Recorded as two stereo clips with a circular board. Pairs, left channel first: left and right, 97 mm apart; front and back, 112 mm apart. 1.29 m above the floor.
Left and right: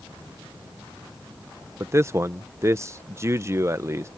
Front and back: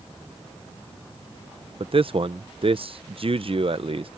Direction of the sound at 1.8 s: 150° right.